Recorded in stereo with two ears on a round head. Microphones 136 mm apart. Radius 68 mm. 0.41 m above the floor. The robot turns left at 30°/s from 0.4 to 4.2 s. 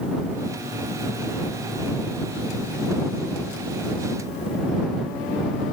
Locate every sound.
Only background noise.